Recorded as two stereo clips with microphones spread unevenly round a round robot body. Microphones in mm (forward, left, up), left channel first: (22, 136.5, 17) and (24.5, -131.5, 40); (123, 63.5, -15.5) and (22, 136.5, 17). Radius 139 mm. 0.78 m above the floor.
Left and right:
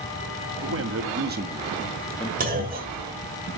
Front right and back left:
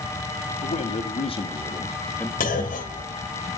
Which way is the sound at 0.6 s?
50° right.